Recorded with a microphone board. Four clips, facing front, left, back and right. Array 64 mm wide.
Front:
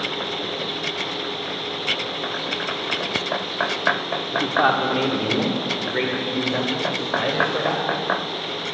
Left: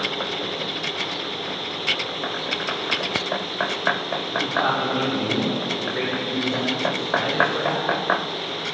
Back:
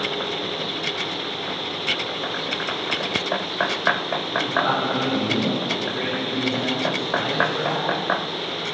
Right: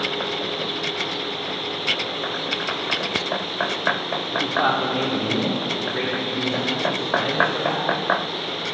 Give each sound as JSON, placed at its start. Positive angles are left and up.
{"t": 4.3, "sound": "a man speaking", "azimuth_deg": -15, "distance_m": 2.5}